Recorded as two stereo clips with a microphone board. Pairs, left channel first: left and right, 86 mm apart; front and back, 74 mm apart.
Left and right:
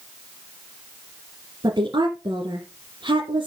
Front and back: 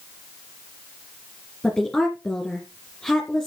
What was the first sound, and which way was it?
A woman speaking, 75° right.